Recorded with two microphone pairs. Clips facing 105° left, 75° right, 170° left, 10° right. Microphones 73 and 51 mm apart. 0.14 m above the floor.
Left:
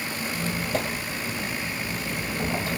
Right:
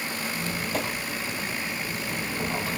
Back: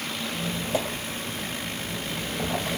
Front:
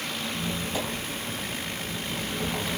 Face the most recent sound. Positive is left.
turn(degrees=170)